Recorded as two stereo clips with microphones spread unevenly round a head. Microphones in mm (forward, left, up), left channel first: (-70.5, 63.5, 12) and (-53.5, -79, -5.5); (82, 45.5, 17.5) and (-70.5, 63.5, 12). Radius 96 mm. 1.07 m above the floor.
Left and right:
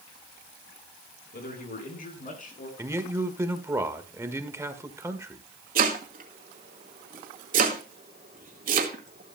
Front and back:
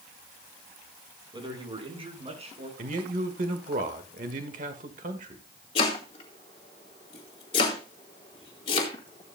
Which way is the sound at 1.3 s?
115° left.